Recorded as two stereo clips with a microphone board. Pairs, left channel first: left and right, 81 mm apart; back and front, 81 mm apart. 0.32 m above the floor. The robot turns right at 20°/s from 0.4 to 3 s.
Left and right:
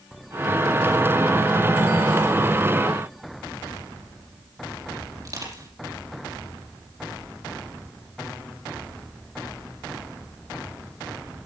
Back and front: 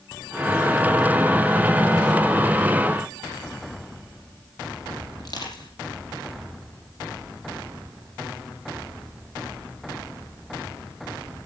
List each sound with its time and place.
5.2 s crushing: 140° right, 5.5 m